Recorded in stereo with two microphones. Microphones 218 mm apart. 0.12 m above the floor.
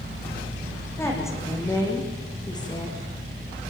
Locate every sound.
1.0 s a woman speaking: 10° left (ahead or behind), 7.5 m; by 3.0 s 20° left (ahead or behind), 7 m